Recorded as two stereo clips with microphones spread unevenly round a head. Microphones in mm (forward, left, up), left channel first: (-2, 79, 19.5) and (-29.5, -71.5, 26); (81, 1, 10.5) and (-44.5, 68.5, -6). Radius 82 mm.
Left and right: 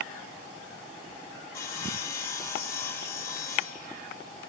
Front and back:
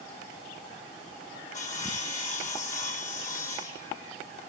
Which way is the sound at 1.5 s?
5° left.